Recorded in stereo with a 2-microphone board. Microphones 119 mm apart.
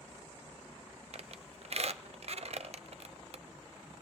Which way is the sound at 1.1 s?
60° right (ahead or behind).